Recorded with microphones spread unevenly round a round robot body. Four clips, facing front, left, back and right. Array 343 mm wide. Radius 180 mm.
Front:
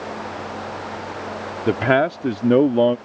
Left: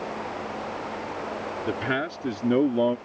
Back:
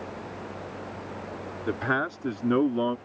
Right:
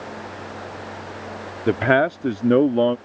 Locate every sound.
1.7 s a man speaking: 40° right; by 3.0 s 20° right